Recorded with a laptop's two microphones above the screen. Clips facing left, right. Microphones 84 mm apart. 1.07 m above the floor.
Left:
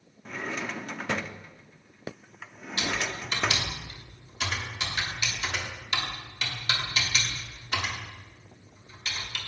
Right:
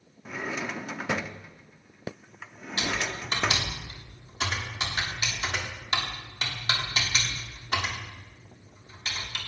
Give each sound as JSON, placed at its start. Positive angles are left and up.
{"t": 0.2, "sound": "a drawer", "side_deg": -10, "distance_m": 0.6}
{"t": 2.8, "sound": "typing on a keyboard", "side_deg": -40, "distance_m": 3.0}